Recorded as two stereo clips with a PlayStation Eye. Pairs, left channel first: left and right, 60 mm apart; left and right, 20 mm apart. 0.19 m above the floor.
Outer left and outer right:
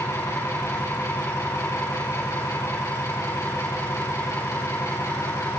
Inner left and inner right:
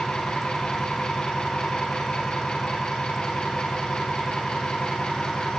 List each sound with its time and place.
0.0 s an engine running: 65° left (ahead or behind), 7.5 m